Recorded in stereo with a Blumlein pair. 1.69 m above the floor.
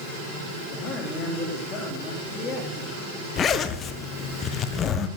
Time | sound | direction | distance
0.7 | a man speaking | 25° left | 3.5 m
3.4 | a zipper | 25° left | 1.5 m